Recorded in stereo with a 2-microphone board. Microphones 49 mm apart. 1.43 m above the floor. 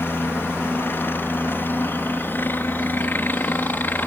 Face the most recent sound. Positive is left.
turn(degrees=40)  # may be behind; listen again after turning